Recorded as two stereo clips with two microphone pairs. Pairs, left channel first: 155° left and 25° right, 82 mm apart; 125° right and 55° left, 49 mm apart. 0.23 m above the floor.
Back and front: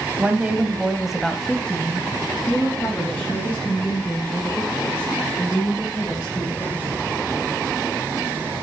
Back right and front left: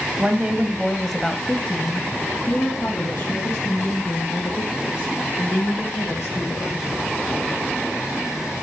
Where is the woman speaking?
25° left, 1.1 m; by 6.8 s 150° right, 4 m.